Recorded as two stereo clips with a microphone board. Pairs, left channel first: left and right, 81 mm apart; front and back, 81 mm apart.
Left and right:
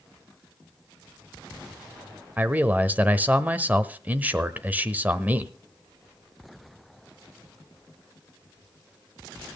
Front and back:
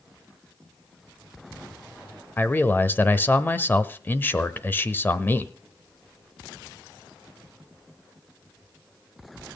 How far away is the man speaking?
About 1.0 m.